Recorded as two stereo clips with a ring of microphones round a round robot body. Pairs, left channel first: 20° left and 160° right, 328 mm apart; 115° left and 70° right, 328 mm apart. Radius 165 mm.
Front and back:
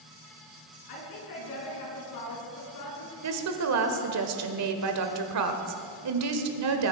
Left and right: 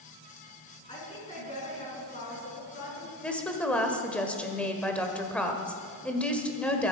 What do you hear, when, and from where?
0.9 s a woman speaking: 40° left, 5 m; by 3.1 s 55° left, 5.5 m
3.2 s a woman speaking: 160° right, 1.4 m